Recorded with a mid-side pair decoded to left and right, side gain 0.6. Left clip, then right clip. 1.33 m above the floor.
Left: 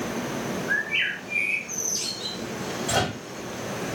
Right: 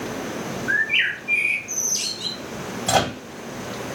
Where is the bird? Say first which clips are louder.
Right 5 dB; 60° right, 0.9 m.